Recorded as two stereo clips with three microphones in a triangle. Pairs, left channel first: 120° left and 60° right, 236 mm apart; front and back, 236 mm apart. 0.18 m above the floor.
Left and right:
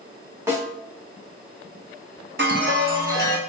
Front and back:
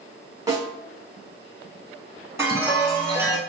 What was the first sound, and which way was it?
A snare drum, 125° right.